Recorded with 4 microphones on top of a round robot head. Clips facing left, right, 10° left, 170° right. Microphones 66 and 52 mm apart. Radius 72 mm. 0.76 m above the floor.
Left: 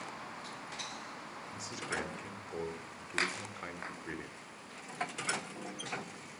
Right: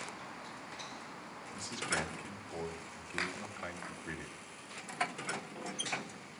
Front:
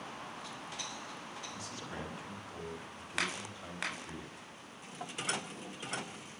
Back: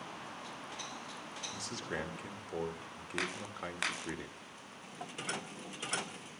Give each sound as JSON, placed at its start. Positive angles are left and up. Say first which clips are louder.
{"t": 1.5, "sound": "a man speaking", "louder": "right 2 dB, back 7 dB", "azimuth_deg": 175, "distance_m": 2.0}